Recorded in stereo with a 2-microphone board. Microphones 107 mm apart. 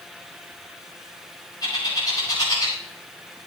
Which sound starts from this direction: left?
A bird, at 1.6 s.